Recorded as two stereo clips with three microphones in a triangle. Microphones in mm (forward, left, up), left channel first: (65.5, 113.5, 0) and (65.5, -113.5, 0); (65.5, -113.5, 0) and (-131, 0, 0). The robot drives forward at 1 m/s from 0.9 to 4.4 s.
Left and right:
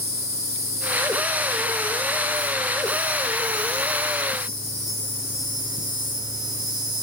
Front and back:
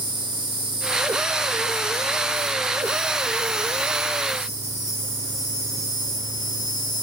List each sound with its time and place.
0.0 s an insect: 85° left, 3 m; by 7.0 s 135° left, 4.5 m